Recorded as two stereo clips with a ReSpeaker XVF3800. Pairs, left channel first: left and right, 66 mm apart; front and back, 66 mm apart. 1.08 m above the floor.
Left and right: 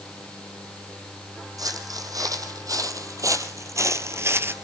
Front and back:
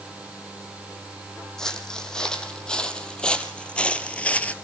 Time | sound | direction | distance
1.6 | footsteps | 80° right | 3 m